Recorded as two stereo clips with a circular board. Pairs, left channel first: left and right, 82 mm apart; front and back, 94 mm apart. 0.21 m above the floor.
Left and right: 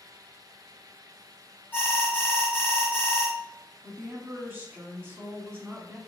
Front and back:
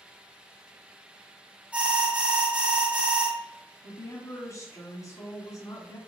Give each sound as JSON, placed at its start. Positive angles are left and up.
{"t": 1.7, "sound": "an alarm", "azimuth_deg": 125, "distance_m": 1.3}
{"t": 3.8, "sound": "a woman speaking", "azimuth_deg": -40, "distance_m": 1.5}